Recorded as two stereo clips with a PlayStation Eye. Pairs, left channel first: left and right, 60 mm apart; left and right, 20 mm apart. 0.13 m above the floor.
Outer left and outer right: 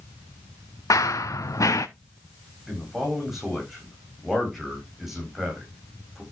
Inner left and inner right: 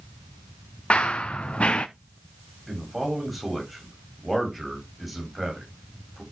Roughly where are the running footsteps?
Left.